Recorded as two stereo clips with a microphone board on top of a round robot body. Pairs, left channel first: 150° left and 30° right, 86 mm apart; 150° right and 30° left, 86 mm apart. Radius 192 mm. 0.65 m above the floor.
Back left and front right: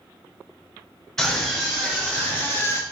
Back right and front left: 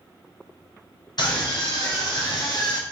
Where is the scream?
130° right, 3.5 m; by 2.8 s 160° right, 1.9 m.